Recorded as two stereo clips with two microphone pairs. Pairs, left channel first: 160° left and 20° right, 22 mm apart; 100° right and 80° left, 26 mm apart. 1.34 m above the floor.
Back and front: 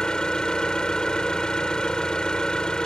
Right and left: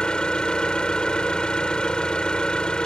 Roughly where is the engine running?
Behind right.